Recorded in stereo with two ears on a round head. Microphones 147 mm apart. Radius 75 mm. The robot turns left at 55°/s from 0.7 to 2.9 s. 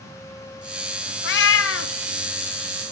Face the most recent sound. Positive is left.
turn(degrees=15)